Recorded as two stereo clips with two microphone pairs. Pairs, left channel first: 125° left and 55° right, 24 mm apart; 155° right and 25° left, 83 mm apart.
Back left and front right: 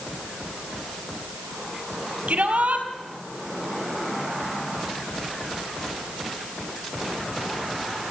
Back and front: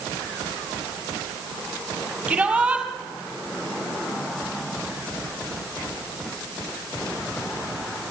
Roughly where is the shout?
Ahead right.